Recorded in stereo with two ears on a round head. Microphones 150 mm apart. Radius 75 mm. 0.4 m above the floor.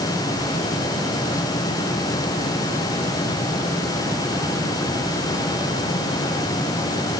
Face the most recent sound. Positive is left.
No sound to turn to.